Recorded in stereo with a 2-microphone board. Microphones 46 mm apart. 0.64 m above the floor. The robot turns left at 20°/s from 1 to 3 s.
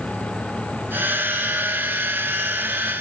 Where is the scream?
No scream in this recording.